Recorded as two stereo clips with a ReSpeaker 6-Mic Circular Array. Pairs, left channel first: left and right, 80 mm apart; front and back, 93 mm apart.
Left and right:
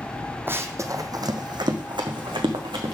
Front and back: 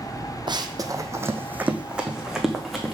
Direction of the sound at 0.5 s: 150° right.